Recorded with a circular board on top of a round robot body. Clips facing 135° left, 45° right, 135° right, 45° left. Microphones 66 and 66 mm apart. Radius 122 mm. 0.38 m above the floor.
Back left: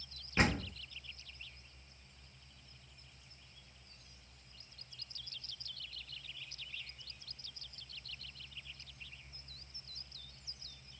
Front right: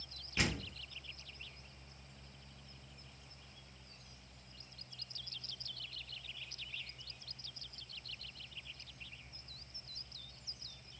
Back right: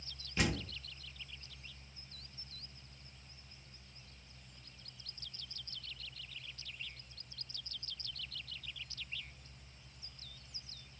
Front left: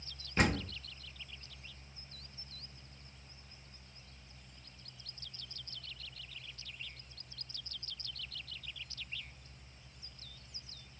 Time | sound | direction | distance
0.4 | a door slam | 85° left | 1.0 m